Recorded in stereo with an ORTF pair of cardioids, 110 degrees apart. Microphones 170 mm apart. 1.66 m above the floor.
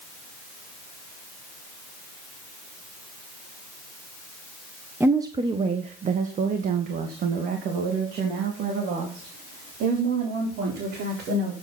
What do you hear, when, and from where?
5.0 s a woman speaking: 10° right, 1.2 m; by 11.5 s 80° right, 5.5 m